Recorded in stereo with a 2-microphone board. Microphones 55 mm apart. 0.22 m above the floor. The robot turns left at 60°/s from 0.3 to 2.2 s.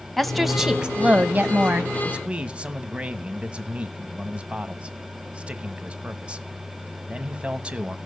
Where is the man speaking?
25° right (ahead or behind), 1.1 m; by 8.0 s 20° right (ahead or behind), 1.1 m.